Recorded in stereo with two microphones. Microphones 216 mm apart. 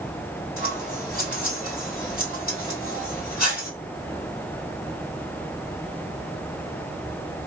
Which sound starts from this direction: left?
Scissors, at 0.6 s.